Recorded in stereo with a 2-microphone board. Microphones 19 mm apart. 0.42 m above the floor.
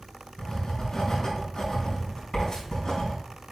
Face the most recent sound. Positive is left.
turn(degrees=45)  # may be behind; listen again after turning